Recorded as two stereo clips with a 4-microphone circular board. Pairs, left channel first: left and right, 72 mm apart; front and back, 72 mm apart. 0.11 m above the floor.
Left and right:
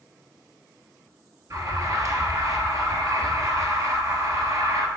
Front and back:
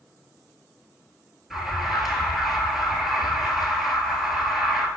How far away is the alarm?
About 1.2 m.